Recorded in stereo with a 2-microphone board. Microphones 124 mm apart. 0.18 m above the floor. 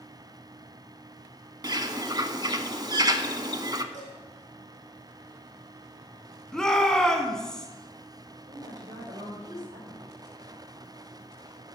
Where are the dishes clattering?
80° right, 5 m.